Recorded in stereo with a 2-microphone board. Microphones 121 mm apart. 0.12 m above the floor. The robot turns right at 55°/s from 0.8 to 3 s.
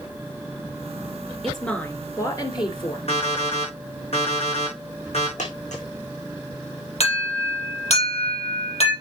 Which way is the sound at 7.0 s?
60° left (ahead or behind).